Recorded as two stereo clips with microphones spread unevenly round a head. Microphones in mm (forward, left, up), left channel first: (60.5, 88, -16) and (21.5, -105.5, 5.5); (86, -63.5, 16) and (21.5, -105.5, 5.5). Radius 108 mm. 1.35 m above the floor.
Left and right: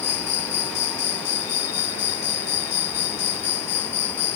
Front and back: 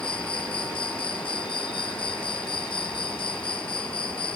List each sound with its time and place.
0.0 s an insect: 85° left